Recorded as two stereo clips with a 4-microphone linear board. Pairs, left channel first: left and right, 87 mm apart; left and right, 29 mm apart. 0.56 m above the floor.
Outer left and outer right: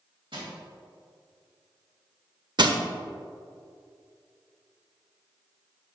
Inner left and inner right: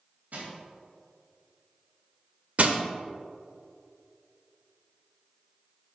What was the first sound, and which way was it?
Crushing, 75° right (ahead or behind).